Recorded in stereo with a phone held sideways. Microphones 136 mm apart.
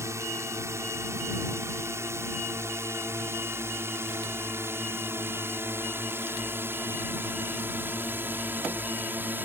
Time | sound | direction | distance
0.0 | a drone | 20° right (ahead or behind) | ?